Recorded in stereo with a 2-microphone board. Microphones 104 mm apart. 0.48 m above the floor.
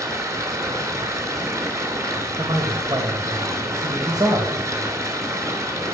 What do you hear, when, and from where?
0.0 s running water: 30° right (ahead or behind), 3.5 m
2.4 s a man speaking: 40° right (ahead or behind), 2.5 m